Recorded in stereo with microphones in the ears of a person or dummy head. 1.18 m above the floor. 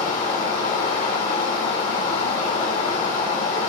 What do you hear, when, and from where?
0.0 s running water: 40° left (ahead or behind), 1.6 m